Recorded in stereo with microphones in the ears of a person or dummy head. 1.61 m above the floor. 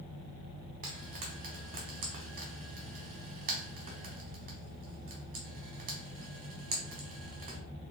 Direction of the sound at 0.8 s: 45° right (ahead or behind).